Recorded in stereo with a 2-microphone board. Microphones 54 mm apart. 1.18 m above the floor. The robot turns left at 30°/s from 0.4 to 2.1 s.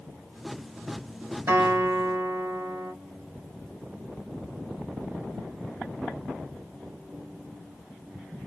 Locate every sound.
1.5 s a guitar: 50° right (ahead or behind), 1.5 m; by 2.9 s 60° right (ahead or behind), 1.5 m